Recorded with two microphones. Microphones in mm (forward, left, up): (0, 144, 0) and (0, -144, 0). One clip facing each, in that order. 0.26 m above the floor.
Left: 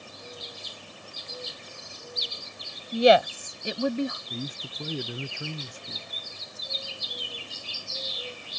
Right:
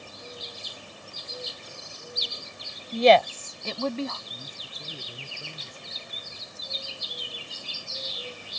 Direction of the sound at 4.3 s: 80° left.